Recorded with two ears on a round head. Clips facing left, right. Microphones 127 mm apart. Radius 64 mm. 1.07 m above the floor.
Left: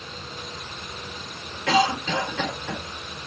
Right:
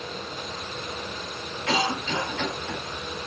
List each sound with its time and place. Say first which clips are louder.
1.7 s a cough: left 5 dB; 60° left (ahead or behind), 5 m